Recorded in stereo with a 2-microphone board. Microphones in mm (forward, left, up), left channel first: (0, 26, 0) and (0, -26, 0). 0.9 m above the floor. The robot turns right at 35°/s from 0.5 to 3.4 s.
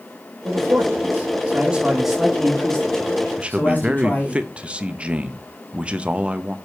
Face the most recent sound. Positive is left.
turn(degrees=-20)  # may be behind; listen again after turning